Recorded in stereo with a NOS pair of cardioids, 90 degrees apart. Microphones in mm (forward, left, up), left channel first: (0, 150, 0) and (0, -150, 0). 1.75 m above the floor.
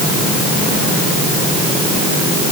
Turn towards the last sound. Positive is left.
No sound to turn to.